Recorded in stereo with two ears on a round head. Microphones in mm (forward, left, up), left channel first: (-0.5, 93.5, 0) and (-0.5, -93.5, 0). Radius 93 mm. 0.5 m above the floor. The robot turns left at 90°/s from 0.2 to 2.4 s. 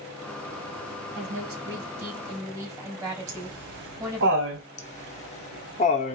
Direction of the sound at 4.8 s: 35° left (ahead or behind).